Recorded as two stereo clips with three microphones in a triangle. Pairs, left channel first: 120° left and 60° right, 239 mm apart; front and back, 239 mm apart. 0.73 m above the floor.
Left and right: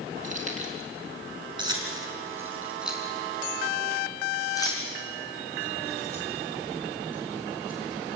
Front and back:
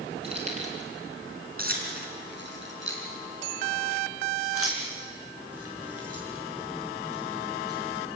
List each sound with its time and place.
0.2 s keys jangling: 115° right, 5.5 m; by 8.2 s 170° left, 8.5 m